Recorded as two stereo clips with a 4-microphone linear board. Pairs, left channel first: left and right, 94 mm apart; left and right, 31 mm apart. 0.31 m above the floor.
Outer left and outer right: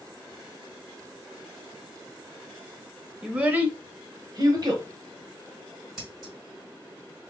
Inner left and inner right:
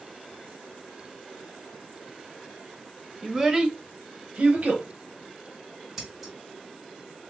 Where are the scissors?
5° right (ahead or behind), 2.0 m.